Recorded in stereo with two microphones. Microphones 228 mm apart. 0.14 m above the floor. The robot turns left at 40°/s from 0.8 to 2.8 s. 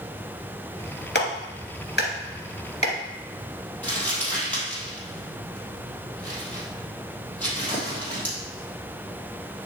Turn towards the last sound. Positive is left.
turn(degrees=5)  # may be behind; listen again after turning